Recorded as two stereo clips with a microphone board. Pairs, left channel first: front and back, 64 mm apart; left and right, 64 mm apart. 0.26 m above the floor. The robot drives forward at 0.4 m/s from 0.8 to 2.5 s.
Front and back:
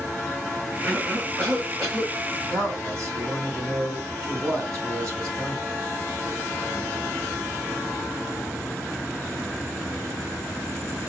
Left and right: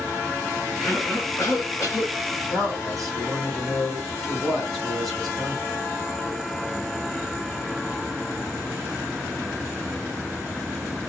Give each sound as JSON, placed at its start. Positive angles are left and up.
{"t": 0.8, "sound": "a cough", "azimuth_deg": 130, "distance_m": 2.5}
{"t": 2.5, "sound": "a man speaking", "azimuth_deg": 180, "distance_m": 2.0}